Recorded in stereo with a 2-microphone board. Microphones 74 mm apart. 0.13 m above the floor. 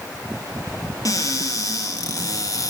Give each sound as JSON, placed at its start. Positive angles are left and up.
{"t": 1.1, "sound": "a cupboard door", "side_deg": 50, "distance_m": 1.2}